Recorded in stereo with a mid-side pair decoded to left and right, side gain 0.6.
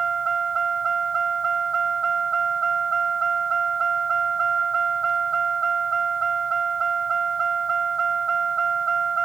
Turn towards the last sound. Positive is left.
turn(degrees=-30)